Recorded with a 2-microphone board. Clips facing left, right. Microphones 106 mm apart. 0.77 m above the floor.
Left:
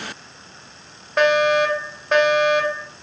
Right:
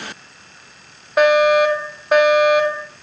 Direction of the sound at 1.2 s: 5° right (ahead or behind).